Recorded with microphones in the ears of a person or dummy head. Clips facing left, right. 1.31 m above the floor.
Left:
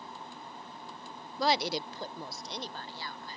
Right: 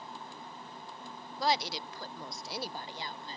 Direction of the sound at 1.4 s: 65° left (ahead or behind).